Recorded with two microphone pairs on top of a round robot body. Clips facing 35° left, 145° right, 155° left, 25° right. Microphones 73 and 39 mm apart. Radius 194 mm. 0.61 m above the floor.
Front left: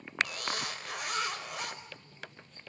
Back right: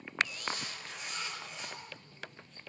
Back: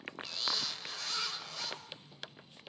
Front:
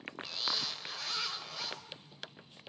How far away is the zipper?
About 5 m.